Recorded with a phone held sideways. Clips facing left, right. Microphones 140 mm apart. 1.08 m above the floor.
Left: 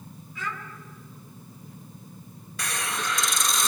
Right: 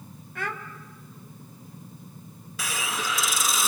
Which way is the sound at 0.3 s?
60° right (ahead or behind).